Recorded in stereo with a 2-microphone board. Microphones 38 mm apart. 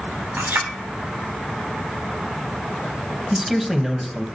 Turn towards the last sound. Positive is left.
turn(degrees=-5)  # may be behind; listen again after turning